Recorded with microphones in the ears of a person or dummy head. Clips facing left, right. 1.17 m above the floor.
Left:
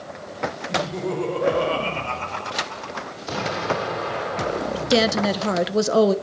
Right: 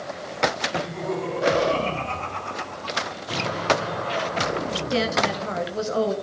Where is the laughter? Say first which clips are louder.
Left 2 dB; 70° left (ahead or behind), 4.5 m; by 3.2 s 85° left, 4 m.